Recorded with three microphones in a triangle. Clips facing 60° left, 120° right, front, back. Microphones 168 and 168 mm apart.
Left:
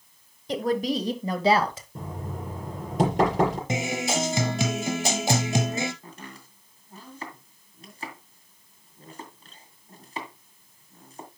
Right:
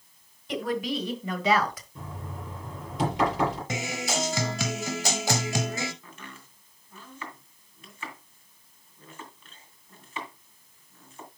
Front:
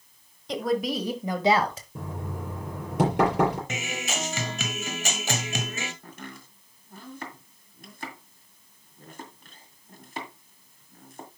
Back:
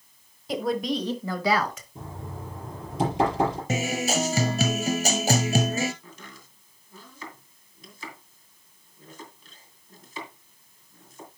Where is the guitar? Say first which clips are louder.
Left 4 dB, back 7 dB; 125° left, 1.0 m.